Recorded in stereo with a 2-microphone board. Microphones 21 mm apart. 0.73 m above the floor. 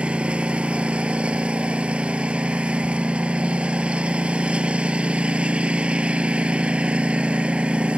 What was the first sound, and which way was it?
A lawn mower, 70° right (ahead or behind).